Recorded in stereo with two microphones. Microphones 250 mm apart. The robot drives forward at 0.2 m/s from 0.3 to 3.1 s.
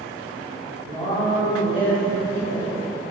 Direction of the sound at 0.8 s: 10° left (ahead or behind).